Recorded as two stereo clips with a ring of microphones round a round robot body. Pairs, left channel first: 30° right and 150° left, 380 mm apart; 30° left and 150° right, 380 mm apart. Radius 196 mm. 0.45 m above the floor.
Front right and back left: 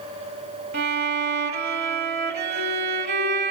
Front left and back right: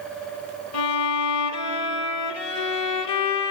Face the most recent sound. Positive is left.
turn(degrees=85)